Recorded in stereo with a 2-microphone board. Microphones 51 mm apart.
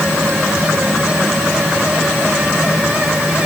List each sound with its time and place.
Only background noise.